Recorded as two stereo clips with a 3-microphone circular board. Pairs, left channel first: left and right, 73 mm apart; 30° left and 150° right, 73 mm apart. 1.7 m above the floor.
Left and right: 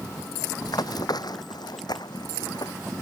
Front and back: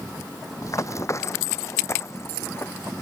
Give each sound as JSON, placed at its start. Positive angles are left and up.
{"t": 0.6, "sound": "running footsteps", "azimuth_deg": 70}